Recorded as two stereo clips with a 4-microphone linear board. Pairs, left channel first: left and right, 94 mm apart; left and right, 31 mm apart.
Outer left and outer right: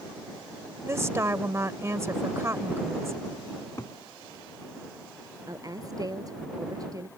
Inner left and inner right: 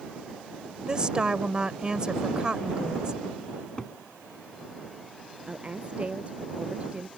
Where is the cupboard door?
35° left (ahead or behind).